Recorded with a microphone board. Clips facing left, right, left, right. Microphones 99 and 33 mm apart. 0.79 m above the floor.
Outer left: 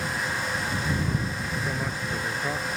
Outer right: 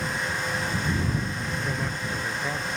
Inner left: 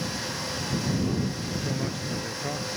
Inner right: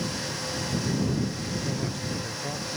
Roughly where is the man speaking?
Centre.